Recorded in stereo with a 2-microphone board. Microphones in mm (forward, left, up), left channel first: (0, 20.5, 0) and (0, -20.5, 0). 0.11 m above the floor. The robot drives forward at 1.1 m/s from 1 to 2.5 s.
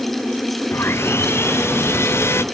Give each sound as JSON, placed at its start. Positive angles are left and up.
{"t": 0.7, "sound": "sawing", "side_deg": 85}